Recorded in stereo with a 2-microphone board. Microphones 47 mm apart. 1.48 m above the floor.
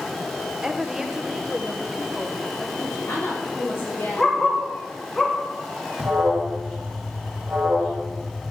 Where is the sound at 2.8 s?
70° left (ahead or behind), 3.5 m.